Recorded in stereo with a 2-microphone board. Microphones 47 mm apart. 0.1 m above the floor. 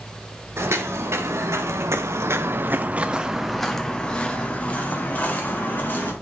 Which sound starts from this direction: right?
Footsteps, at 0.6 s.